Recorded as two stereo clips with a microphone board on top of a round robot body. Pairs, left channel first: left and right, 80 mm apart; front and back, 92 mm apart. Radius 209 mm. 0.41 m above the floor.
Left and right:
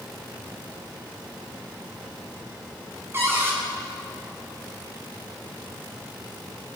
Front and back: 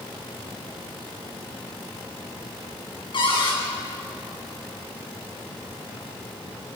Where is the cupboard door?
30° right, 6 m.